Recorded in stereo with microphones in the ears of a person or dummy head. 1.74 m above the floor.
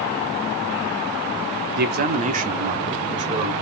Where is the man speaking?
55° right (ahead or behind), 0.7 m; by 3.5 s 40° right (ahead or behind), 1.5 m.